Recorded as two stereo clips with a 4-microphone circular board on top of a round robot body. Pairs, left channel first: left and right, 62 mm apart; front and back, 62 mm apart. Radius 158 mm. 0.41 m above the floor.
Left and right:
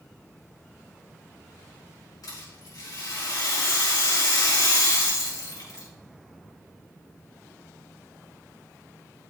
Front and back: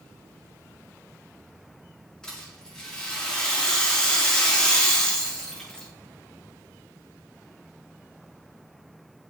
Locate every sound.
2.2 s a rattle: 80° left, 6 m